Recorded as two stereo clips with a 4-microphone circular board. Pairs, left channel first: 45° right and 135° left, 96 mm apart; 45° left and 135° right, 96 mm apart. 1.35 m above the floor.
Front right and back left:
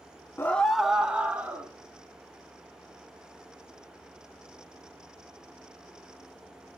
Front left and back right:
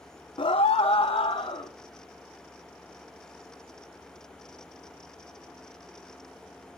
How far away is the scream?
About 0.6 m.